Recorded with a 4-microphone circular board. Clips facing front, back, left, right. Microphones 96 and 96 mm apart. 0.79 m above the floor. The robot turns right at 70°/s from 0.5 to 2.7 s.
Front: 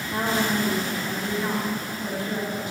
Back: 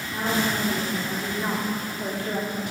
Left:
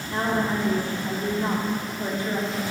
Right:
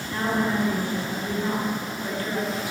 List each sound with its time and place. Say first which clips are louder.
0.1 s a woman speaking: front 1 dB, even; 40° left, 1.6 m; by 2.7 s 165° right, 1.6 m